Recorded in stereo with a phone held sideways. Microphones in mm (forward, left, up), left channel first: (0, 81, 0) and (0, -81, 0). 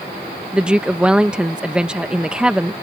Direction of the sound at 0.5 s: 5° right (ahead or behind).